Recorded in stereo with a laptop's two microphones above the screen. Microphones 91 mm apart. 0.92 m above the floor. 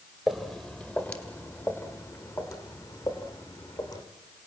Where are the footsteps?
Centre (ahead or behind), 1.6 m; by 4.0 s 50° left (ahead or behind), 3.5 m.